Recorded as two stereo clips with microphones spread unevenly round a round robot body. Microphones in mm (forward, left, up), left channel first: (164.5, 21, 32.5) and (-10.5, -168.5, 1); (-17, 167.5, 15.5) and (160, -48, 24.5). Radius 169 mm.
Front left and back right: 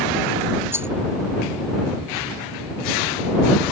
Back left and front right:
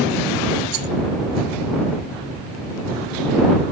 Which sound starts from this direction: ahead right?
A rattle, at 0.7 s.